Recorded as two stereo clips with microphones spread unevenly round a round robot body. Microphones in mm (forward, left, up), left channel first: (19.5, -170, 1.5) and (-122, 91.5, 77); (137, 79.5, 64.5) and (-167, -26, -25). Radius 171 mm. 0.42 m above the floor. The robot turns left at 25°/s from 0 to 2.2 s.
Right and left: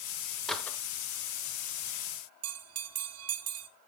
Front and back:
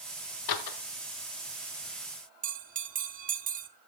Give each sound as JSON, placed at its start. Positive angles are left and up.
{"t": 0.5, "sound": "a door slam", "azimuth_deg": 15, "distance_m": 1.2}
{"t": 2.4, "sound": "a bell", "azimuth_deg": 160, "distance_m": 1.3}